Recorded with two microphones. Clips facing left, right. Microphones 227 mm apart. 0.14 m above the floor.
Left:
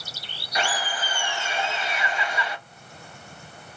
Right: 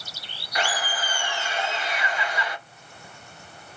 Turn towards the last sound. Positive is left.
turn(degrees=25)  # may be behind; listen again after turning